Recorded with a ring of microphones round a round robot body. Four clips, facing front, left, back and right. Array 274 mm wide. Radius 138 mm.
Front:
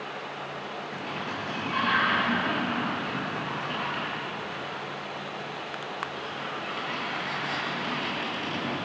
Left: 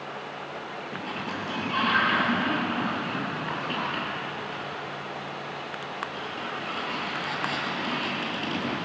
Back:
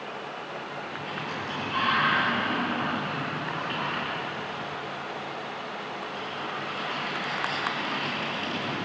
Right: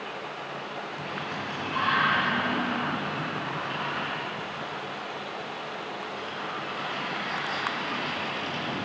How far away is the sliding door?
About 9 m.